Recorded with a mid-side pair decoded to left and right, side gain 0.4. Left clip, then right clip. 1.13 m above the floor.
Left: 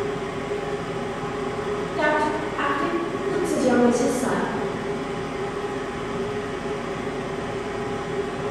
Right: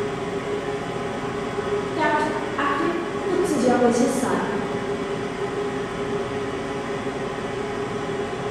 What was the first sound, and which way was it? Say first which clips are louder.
A machine running: right 1 dB; 25° right.